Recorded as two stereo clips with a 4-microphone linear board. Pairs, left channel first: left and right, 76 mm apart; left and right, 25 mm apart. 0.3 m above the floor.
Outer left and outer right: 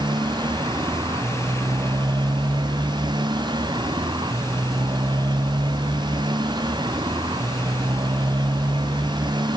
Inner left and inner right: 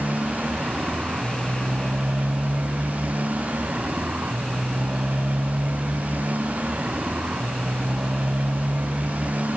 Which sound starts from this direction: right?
A motorcycle, at 0.0 s.